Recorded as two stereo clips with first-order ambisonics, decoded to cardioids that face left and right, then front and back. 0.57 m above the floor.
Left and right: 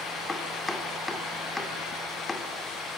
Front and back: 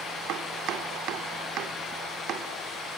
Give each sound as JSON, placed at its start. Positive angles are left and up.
{"t": 0.3, "sound": "chopping", "azimuth_deg": 165, "distance_m": 1.9}